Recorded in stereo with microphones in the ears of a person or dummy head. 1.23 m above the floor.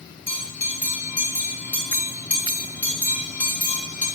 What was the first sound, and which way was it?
A bell, 15° left (ahead or behind).